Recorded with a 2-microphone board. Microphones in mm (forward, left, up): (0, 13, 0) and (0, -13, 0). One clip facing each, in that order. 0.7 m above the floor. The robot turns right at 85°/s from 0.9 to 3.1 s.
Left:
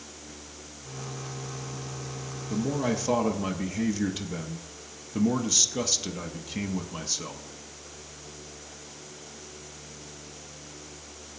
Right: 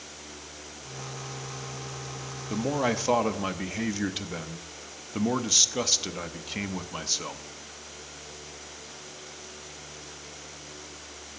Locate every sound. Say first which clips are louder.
2.5 s a man speaking: right 1 dB; 80° right, 0.6 m; by 7.4 s 30° right, 0.6 m